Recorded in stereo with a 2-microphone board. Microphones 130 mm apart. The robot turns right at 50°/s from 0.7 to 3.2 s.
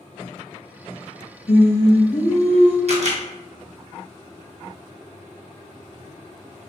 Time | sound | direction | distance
1.5 | singing | 110° left | 1.2 m
2.9 | a camera shutter | 55° right (ahead or behind) | 0.8 m